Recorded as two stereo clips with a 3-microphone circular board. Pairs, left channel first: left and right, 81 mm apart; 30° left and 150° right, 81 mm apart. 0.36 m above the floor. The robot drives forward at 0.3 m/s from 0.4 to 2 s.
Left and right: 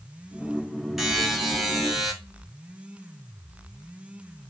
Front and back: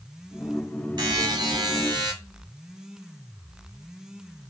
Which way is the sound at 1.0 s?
175° right.